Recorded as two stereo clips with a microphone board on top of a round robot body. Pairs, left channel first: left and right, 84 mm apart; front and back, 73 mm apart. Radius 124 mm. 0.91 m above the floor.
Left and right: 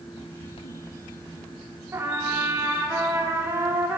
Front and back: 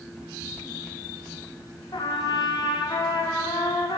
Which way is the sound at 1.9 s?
25° right.